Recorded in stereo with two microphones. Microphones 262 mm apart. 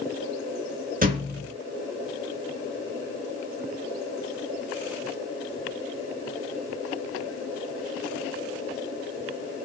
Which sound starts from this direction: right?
A thud, at 1.0 s.